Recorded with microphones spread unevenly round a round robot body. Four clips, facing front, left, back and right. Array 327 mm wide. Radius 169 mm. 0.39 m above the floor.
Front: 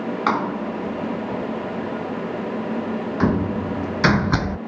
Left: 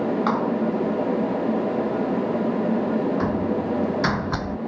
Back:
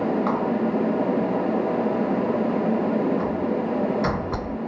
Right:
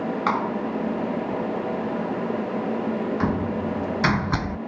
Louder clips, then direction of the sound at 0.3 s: Left 2 dB, even; 15° right.